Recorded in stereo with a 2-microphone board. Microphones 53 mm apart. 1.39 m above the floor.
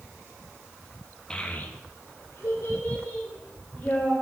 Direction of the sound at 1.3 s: 15° left (ahead or behind).